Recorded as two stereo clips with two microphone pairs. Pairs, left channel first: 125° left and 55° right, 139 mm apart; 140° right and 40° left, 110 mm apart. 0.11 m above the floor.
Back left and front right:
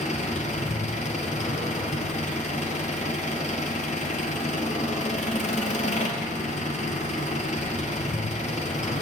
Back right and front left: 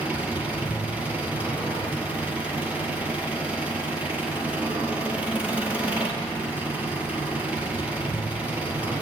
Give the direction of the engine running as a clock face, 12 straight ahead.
8 o'clock.